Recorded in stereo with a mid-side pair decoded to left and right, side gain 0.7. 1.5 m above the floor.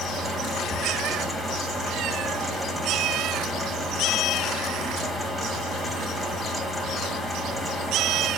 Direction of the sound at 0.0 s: 5° left.